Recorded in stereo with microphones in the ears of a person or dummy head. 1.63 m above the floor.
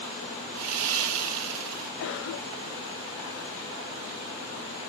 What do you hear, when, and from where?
0.6 s sawing: 80° right, 1.1 m
2.0 s a cough: 65° left (ahead or behind), 0.9 m